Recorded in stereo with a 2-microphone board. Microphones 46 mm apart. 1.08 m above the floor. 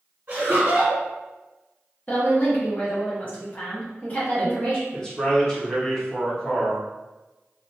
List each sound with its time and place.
0.3 s laughter: 45° right (ahead or behind), 1.1 m
2.1 s a woman speaking: 35° left (ahead or behind), 0.8 m
4.9 s a man speaking: 15° left (ahead or behind), 0.8 m